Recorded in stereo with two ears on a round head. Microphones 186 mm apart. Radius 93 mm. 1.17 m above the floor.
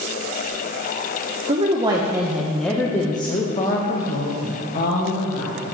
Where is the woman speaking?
30° right (ahead or behind), 1.1 m; by 5.6 s 50° left (ahead or behind), 2 m.